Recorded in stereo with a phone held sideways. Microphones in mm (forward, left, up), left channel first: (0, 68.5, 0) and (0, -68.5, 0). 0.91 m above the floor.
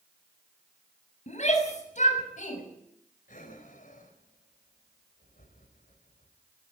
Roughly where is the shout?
Left.